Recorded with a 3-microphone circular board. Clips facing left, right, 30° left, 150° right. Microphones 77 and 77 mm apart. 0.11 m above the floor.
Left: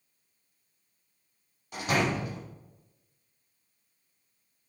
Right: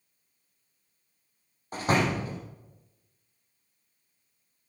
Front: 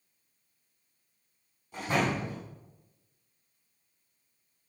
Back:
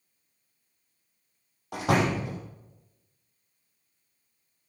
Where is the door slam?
140° right, 3.5 m.